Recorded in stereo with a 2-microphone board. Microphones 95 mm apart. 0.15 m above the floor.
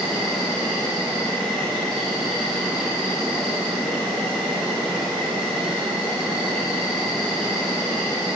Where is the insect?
Centre (ahead or behind), 3 m.